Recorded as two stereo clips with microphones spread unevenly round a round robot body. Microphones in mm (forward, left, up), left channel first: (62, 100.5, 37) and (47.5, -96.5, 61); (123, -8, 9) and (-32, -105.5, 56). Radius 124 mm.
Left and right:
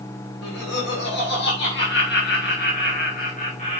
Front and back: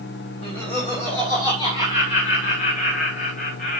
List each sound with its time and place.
0.4 s laughter: 110° left, 3.5 m; by 3.8 s 40° left, 2.5 m